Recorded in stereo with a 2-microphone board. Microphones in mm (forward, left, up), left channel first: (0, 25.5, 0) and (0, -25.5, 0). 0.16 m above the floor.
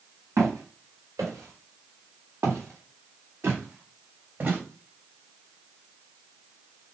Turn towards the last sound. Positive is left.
turn(degrees=-35)  # may be behind; listen again after turning